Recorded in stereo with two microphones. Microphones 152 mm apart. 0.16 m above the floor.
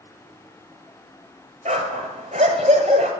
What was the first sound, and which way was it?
A dog barking, 60° right (ahead or behind).